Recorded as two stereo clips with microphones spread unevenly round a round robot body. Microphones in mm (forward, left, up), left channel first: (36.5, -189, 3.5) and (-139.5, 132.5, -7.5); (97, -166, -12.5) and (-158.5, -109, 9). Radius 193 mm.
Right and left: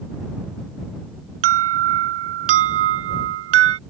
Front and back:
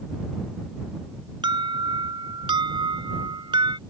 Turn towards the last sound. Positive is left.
turn(degrees=90)